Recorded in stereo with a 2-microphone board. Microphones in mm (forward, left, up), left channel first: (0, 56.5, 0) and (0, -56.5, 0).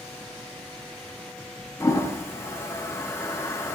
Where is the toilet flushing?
25° left (ahead or behind), 0.6 m.